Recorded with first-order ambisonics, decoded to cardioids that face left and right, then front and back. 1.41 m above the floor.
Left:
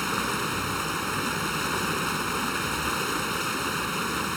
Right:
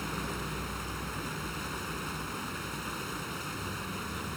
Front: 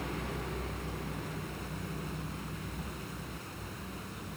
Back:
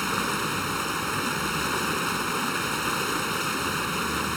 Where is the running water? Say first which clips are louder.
Left 9 dB, back 13 dB; 150° left.